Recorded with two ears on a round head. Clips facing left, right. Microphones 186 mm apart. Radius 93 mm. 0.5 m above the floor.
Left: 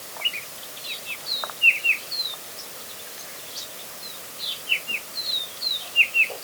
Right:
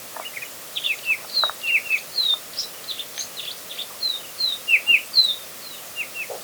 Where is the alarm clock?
No alarm clock in this recording.